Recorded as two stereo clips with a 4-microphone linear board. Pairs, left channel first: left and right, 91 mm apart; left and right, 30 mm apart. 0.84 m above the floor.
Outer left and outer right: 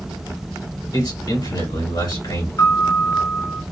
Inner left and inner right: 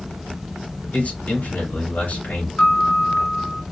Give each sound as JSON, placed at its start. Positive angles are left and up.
{"t": 0.9, "sound": "a man speaking", "side_deg": 55, "distance_m": 2.5}
{"t": 2.6, "sound": "a piano", "side_deg": 40, "distance_m": 0.6}